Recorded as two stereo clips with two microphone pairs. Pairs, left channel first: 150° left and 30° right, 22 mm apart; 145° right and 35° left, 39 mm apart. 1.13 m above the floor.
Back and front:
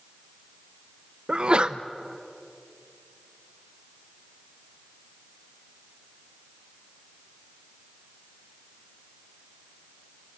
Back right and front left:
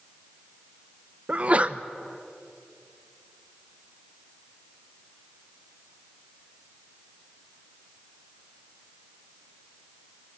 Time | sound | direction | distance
1.3 | a sneeze | 5° right | 0.9 m